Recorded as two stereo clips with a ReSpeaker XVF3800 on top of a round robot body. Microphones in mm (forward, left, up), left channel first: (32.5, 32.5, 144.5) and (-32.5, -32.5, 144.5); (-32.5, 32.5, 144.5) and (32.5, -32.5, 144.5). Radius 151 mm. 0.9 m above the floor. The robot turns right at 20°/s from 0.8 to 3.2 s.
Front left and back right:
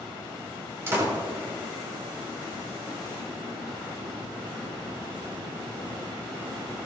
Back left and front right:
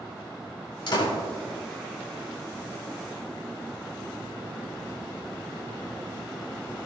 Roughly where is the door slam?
Behind.